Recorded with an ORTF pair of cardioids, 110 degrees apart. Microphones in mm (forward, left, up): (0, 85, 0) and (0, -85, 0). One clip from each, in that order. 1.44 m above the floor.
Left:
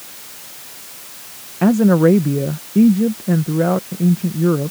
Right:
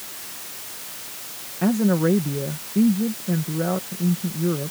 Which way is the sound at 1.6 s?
45° left.